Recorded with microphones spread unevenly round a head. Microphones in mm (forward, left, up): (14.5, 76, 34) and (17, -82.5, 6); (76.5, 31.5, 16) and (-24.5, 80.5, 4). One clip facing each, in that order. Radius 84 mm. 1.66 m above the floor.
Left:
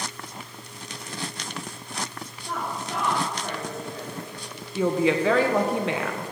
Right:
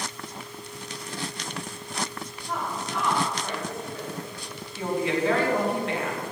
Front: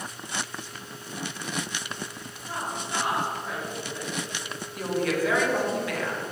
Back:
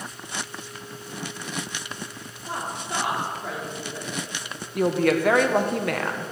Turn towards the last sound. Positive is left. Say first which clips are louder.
# left 4 dB, back 6 dB
turn(degrees=120)